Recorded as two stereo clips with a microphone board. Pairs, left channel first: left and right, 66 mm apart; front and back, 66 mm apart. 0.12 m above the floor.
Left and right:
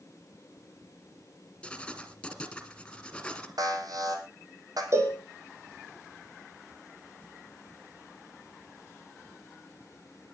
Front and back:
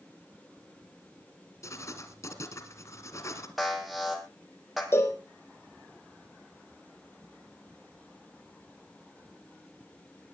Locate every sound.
1.6 s writing: 15° left, 2 m
3.6 s an alarm: 90° right, 3.5 m
4.9 s a cowbell: 50° right, 4 m